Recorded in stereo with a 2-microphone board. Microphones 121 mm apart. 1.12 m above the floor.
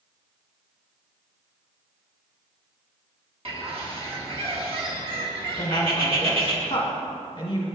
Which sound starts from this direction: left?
A woman speaking, at 5.6 s.